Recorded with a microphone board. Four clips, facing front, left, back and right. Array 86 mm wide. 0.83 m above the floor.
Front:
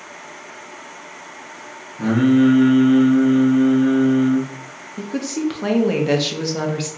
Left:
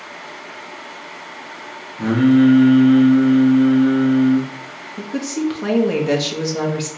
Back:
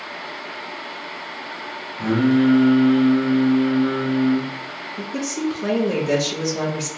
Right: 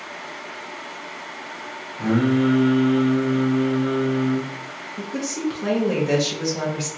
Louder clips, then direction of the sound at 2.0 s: Left 6 dB, front 3 dB; 40° left.